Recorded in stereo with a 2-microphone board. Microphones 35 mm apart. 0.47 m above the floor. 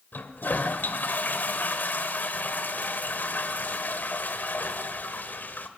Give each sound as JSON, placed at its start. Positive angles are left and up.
{"t": 0.1, "sound": "a toilet flushing", "side_deg": 65, "distance_m": 1.4}